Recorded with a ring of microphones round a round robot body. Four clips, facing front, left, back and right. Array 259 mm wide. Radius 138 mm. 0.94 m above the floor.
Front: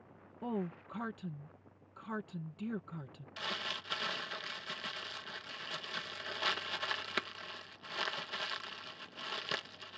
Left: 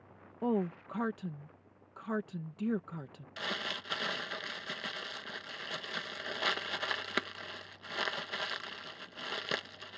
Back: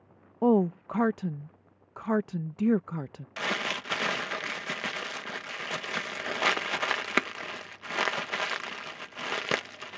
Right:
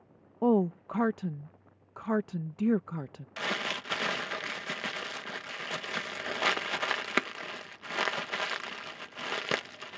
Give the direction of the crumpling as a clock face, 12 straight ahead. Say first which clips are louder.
Right 5 dB, back 10 dB; 5 o'clock.